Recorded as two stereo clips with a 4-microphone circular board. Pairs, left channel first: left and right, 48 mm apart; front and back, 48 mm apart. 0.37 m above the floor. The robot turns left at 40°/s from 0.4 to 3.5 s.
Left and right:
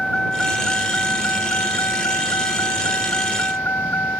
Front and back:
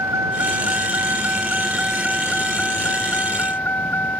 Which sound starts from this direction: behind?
A vehicle, at 0.0 s.